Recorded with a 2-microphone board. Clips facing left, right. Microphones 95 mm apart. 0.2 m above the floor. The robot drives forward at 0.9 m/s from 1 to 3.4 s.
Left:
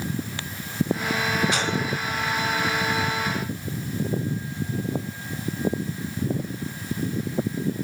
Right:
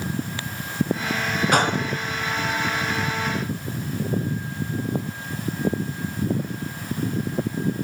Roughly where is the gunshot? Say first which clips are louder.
Right 5 dB; right.